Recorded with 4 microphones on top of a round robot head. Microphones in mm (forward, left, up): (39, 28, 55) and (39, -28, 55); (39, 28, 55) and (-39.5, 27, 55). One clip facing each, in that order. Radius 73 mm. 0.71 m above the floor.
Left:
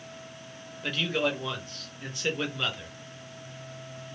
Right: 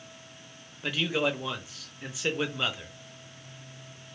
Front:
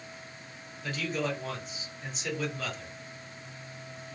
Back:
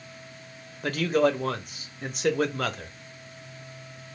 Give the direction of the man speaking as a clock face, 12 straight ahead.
6 o'clock.